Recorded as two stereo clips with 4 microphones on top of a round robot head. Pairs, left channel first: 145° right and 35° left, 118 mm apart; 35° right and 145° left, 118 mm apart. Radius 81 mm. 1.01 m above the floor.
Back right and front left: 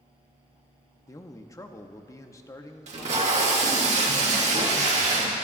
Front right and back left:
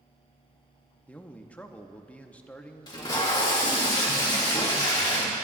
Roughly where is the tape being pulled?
Ahead.